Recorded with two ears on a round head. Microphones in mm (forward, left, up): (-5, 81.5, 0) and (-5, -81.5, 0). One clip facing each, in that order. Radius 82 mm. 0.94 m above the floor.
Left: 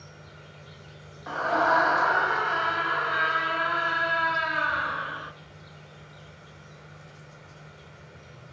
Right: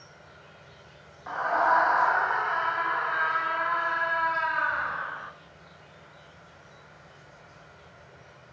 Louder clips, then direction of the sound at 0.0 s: Left 3 dB; 40° left (ahead or behind).